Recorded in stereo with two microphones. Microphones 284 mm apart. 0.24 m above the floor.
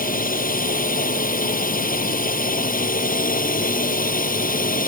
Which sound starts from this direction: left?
A drone, at 0.0 s.